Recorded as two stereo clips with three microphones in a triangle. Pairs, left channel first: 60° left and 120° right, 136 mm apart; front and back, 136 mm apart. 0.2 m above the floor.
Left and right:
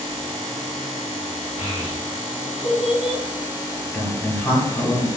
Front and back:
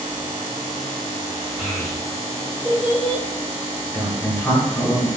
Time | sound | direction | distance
1.6 | a child speaking | 45° right | 1.4 m
3.9 | a man speaking | 10° left | 1.1 m